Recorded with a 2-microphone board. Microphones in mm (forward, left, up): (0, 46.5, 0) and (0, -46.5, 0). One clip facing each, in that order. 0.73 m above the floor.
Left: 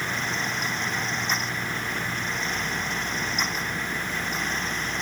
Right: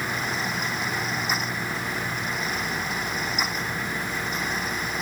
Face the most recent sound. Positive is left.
No sound to turn to.